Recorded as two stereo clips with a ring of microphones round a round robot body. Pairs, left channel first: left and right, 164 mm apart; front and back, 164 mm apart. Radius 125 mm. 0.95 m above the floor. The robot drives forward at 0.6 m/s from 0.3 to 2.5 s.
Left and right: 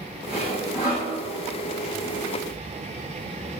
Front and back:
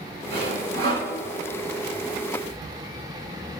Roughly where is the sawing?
Behind.